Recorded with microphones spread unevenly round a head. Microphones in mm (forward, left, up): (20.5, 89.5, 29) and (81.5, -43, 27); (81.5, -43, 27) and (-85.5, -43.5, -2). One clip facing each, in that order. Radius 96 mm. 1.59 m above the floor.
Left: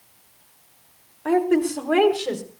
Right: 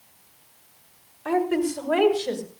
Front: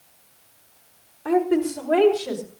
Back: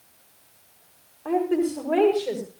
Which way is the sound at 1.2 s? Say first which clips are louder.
Left 4 dB, front 2 dB; 80° left.